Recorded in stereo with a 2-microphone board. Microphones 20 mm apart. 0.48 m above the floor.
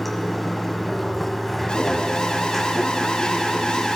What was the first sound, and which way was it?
Running water, 10° left (ahead or behind).